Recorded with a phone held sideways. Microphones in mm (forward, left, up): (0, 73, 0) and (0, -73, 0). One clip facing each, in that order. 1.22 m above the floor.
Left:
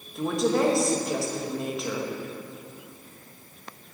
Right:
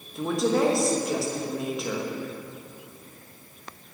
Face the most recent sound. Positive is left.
turn(degrees=0)  # may be behind; listen again after turning